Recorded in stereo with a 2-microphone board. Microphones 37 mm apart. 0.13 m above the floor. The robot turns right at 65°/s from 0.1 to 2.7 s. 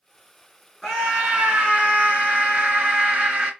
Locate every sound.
0.8 s a scream: 175° right, 2 m; by 3.5 s 55° right, 2 m